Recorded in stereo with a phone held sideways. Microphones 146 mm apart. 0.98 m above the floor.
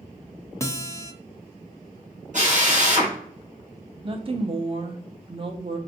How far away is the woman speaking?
About 0.8 m.